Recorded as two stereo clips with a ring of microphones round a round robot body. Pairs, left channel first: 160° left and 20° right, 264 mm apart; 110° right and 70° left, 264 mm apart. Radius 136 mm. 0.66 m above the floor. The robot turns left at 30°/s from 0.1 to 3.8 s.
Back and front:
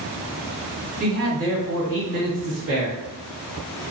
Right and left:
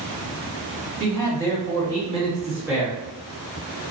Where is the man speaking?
35° left, 1.7 m; by 3.0 s 25° right, 1.7 m.